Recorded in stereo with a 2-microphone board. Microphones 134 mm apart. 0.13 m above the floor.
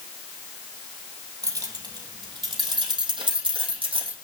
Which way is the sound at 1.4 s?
25° right (ahead or behind).